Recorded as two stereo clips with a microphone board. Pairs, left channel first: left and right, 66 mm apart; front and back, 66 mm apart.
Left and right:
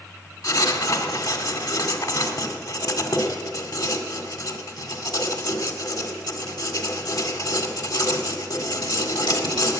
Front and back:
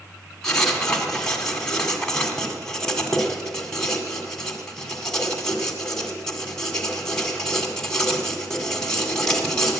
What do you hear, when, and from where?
0.4 s writing: 80° left, 1.8 m